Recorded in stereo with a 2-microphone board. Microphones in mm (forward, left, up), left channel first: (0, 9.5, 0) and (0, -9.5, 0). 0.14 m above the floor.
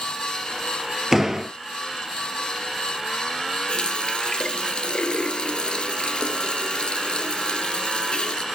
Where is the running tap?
55° left (ahead or behind), 1.7 m.